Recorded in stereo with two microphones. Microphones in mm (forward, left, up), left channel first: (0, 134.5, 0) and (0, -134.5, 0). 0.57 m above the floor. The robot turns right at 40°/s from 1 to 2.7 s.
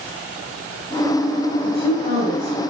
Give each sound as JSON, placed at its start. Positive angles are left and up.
{"t": 1.6, "sound": "a woman speaking", "azimuth_deg": 125, "distance_m": 3.0}